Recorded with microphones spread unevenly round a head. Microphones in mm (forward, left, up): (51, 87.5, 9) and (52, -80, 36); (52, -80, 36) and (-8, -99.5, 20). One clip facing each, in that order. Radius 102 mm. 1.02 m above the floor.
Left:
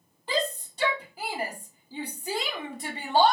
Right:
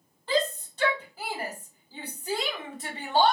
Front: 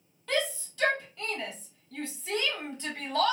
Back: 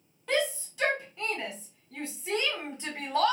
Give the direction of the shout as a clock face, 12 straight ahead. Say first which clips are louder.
Right 2 dB, back 2 dB; 7 o'clock.